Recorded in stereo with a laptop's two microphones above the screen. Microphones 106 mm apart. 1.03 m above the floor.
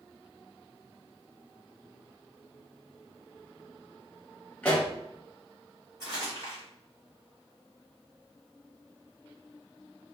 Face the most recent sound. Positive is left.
turn(degrees=-45)  # may be behind; listen again after turning